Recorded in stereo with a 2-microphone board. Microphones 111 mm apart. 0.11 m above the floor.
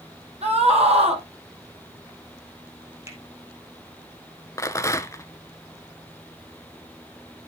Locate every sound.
0.4 s a scream: 70° right (ahead or behind), 4 m
3.1 s a finger snap: 25° right (ahead or behind), 2 m
4.6 s a rattle: 30° left (ahead or behind), 0.5 m